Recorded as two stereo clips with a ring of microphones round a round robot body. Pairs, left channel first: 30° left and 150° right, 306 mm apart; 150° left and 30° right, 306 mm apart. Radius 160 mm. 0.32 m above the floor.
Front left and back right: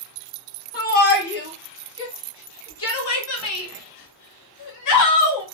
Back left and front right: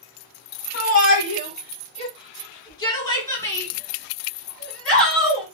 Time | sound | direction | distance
0.7 | a shout | 90° left | 2.5 m